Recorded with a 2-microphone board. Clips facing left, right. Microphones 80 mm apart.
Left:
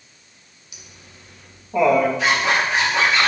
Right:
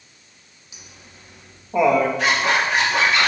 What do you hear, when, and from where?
0.7 s laughter: 30° right (ahead or behind), 1.6 m; by 2.1 s centre (ahead or behind), 1.1 m
2.2 s a zipper: 60° right (ahead or behind), 2.5 m